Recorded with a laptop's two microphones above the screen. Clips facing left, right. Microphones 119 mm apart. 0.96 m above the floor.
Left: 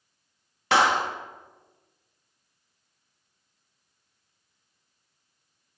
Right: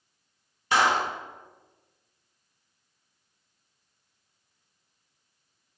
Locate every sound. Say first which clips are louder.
0.7 s a clap: left 2 dB; 75° left (ahead or behind), 1.4 m